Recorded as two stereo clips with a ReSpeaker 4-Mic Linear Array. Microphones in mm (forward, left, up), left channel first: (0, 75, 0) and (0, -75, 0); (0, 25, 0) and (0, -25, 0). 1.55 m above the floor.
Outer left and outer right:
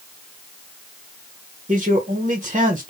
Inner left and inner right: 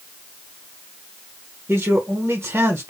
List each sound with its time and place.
1.7 s a man speaking: 45° right (ahead or behind), 1.4 m